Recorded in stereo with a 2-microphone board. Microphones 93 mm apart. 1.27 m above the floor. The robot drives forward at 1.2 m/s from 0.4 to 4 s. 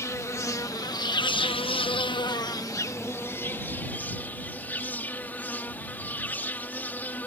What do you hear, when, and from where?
0.0 s an insect: 30° left (ahead or behind); by 7.3 s 20° left (ahead or behind)